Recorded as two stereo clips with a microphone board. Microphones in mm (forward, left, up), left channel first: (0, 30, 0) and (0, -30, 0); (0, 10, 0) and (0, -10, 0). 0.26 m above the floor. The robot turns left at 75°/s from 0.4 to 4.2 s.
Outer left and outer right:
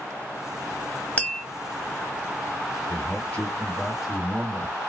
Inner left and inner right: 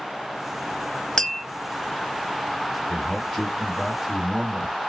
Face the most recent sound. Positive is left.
turn(degrees=-25)